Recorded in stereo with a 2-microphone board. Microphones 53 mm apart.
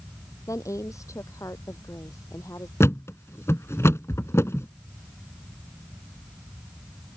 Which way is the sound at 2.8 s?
60° left (ahead or behind).